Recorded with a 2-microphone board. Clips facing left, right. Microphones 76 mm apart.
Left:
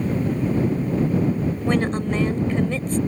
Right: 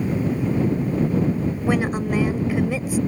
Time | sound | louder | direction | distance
1.7 | a woman speaking | even | 10° right (ahead or behind) | ?